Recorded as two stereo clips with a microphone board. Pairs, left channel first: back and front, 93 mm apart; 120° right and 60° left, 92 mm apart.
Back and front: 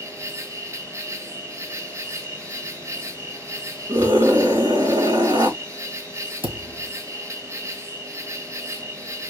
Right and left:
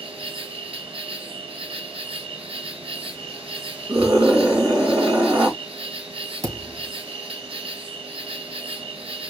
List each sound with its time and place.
0.0 s an insect: 60° left, 0.8 m
3.9 s a scream: 25° left, 3.5 m
6.4 s a thud: 15° left, 2.5 m